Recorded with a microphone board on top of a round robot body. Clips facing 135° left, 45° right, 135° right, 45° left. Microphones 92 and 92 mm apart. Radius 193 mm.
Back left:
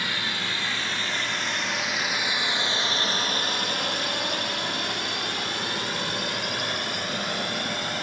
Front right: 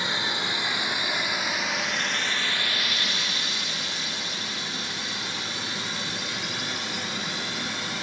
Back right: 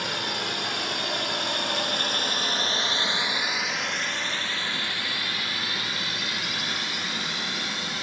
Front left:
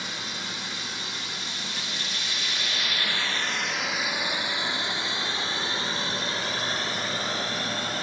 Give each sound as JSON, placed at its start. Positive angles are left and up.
{"t": 0.0, "sound": "a drone", "azimuth_deg": -110}